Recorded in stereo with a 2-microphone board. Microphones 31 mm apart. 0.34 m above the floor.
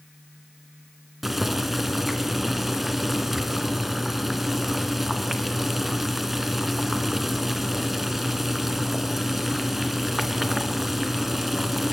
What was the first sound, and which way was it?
Boiling, 10° right (ahead or behind).